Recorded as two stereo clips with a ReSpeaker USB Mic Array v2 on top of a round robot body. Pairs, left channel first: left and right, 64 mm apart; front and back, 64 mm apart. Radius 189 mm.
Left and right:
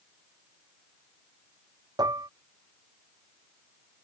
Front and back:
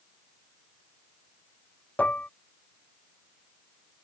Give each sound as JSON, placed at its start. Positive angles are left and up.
{"t": 2.0, "sound": "dishes clattering", "azimuth_deg": -70}